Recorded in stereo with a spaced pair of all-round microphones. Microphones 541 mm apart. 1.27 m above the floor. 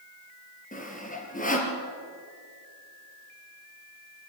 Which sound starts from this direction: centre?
Sawing, at 0.7 s.